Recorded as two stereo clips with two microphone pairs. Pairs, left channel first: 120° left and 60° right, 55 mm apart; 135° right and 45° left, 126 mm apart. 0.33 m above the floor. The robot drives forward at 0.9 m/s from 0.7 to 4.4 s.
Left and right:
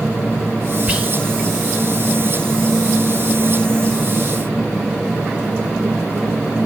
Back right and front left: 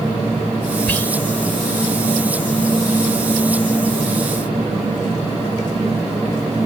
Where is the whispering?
75° right, 1.0 m; by 1.1 s 105° right, 1.0 m.